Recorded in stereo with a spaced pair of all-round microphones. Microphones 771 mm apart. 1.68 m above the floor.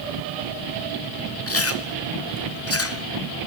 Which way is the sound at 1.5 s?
20° left (ahead or behind).